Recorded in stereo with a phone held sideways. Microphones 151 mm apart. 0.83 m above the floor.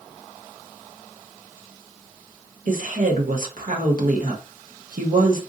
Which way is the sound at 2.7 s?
65° right (ahead or behind).